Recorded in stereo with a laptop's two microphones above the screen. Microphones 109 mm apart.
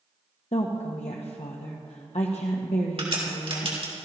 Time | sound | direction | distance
0.5 | a woman speaking | 75° left (ahead or behind) | 0.8 m
3.0 | a crack | 60° right (ahead or behind) | 3 m